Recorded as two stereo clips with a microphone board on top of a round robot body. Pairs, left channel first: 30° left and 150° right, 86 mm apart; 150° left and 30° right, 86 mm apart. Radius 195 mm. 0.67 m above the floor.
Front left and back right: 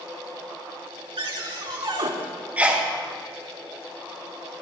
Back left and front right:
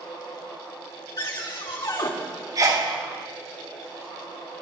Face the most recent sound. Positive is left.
turn(degrees=-75)